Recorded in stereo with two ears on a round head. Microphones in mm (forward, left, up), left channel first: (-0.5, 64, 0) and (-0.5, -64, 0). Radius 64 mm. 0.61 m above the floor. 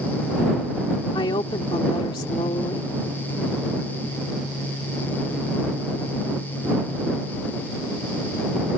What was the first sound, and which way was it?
A woman speaking, 30° left (ahead or behind).